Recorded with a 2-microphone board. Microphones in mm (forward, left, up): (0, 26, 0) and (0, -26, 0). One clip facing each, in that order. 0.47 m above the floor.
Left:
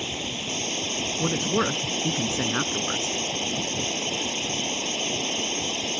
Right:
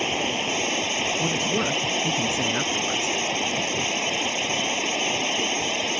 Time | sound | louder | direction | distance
0.0 | running water | right 7 dB | 55° right (ahead or behind) | ?
1.2 | a man speaking | left 4 dB | 35° left (ahead or behind) | ?